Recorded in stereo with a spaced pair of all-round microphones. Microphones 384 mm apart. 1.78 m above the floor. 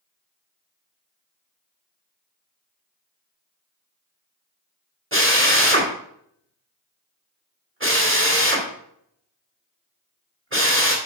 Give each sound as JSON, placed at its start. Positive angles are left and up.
{"t": 5.1, "sound": "a drill", "side_deg": -30, "distance_m": 2.0}